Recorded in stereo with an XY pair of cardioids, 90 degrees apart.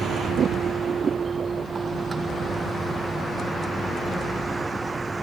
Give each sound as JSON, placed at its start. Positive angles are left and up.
{"t": 0.0, "sound": "a vehicle", "azimuth_deg": -65}